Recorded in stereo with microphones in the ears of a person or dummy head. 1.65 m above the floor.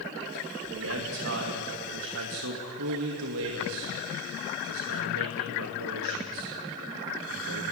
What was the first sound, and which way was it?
A man speaking, 70° right (ahead or behind).